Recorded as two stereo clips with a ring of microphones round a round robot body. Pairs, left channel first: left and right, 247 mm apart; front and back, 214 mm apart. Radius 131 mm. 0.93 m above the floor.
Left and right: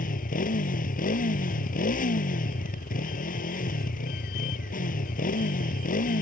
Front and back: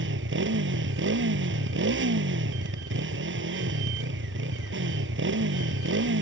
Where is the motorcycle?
150° left.